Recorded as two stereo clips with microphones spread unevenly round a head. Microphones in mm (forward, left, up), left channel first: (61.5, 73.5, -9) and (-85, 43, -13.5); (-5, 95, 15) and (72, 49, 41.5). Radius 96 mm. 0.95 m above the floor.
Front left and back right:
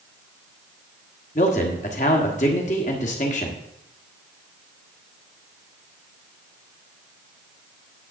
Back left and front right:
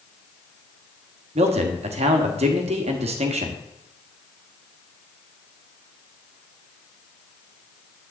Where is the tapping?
I don't hear tapping.